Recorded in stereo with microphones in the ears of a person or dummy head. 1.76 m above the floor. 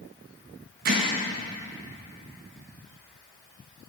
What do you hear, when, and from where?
0.8 s hammering: 40° right (ahead or behind), 1.2 m